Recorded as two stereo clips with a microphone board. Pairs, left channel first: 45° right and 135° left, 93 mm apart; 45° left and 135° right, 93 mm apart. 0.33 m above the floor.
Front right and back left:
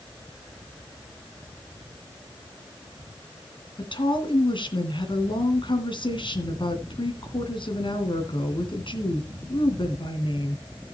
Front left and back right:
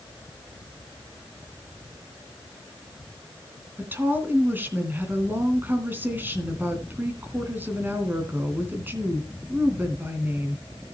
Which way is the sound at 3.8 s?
65° right.